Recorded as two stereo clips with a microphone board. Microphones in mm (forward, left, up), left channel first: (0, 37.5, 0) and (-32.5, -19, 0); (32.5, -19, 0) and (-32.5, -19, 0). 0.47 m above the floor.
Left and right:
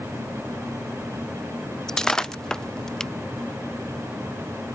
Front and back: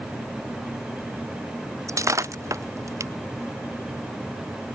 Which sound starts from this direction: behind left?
Breaking glass, at 1.9 s.